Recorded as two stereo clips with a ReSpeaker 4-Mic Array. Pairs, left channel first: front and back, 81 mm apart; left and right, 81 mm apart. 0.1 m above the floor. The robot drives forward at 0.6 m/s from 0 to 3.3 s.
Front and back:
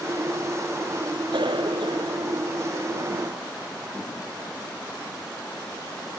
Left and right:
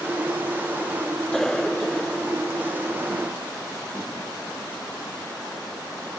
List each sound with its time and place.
1.3 s a cough: 175° left